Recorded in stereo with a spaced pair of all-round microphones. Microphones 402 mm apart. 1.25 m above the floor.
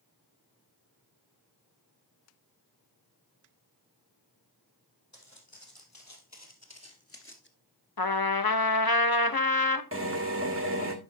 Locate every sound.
5.1 s footsteps: 45° left (ahead or behind), 3 m; by 7.5 s 25° left (ahead or behind), 1.3 m
8.0 s a trumpet: 60° left (ahead or behind), 0.8 m
9.9 s a drill: 30° right (ahead or behind), 1.6 m